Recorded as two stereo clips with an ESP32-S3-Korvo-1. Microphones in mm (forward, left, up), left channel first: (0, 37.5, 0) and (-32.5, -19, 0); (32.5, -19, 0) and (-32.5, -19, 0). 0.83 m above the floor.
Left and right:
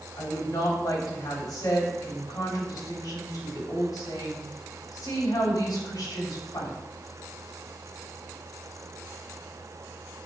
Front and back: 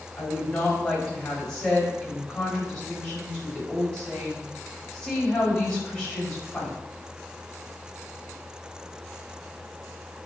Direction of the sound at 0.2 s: 80° left.